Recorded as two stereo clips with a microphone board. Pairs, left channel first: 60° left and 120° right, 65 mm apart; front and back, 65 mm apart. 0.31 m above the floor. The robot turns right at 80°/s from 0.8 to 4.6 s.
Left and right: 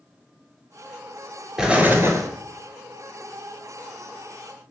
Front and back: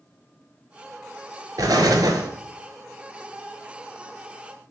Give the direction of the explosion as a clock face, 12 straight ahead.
7 o'clock.